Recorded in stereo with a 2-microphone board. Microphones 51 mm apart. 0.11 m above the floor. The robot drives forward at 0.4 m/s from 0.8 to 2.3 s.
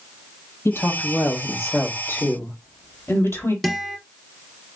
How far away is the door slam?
I don't hear a door slam.